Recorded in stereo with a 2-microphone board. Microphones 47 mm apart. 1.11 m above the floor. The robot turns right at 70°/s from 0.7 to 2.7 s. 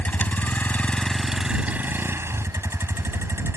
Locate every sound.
0.0 s a vehicle: 140° left; by 3.6 s 80° right